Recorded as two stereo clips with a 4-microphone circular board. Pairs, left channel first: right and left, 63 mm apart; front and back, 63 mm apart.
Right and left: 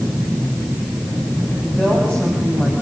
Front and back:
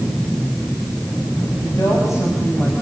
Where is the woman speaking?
20° right, 6 m; by 2.7 s 30° right, 4.5 m.